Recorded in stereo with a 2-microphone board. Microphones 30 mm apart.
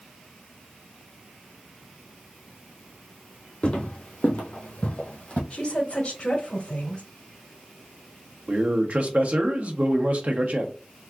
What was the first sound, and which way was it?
Footsteps, 40° left (ahead or behind).